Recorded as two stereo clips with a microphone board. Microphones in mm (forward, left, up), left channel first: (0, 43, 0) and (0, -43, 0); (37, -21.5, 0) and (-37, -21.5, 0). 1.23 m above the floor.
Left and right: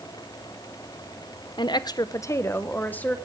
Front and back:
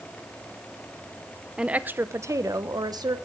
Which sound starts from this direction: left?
A woman speaking, at 1.6 s.